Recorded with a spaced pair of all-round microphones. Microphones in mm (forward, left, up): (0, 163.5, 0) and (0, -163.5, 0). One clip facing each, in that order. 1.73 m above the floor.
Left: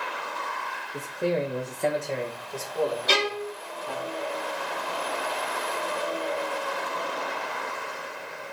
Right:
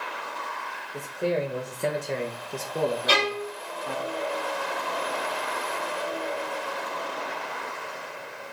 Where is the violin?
40° left (ahead or behind), 1.9 m.